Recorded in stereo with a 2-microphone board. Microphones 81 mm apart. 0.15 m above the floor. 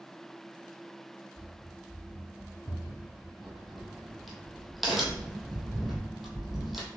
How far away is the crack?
About 1.1 m.